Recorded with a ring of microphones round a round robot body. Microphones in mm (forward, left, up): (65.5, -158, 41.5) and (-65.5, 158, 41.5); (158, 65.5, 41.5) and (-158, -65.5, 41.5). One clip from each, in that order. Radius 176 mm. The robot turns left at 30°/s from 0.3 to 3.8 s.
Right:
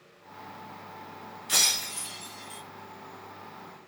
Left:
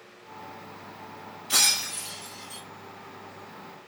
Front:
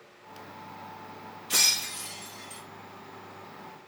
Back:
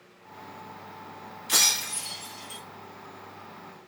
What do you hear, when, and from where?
1.5 s breaking glass: 120° right, 2.5 m; by 2.6 s 150° right, 2.5 m